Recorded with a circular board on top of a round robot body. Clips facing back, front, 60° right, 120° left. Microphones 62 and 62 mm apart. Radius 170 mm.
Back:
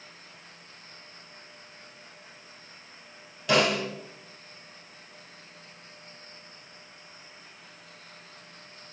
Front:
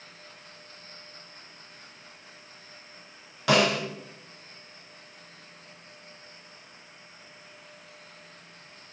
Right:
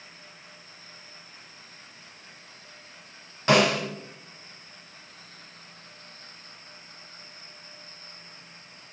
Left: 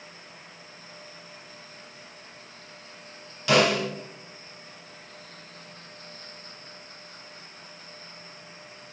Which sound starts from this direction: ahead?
A snare drum, at 3.5 s.